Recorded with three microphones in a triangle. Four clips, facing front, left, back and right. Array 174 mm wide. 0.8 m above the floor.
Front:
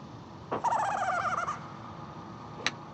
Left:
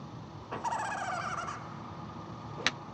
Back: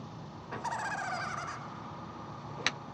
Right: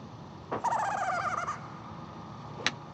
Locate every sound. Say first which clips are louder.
0.5 s laughter: right 5 dB, front 8 dB; 35° right, 0.6 m